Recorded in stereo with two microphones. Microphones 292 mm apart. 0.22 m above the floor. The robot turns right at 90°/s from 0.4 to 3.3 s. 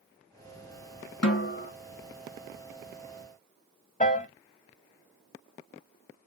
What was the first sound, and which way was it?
A snare drum, 115° left.